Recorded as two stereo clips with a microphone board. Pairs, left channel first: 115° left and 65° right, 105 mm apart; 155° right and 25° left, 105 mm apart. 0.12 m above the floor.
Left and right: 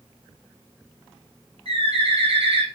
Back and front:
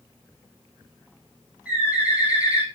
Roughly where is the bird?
Ahead right.